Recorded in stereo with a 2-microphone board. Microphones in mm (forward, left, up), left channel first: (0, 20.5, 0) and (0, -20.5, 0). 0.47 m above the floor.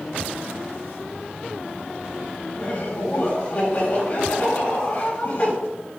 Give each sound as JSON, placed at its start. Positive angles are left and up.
{"t": 2.5, "sound": "laughter", "side_deg": 55, "distance_m": 3.5}